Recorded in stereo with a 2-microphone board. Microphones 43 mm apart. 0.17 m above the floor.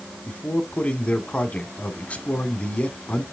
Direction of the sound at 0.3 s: 30° left (ahead or behind).